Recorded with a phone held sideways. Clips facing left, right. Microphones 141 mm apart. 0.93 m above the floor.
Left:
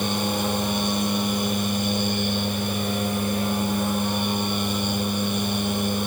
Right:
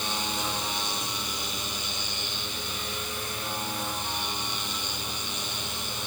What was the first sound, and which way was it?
A machine running, 55° left (ahead or behind).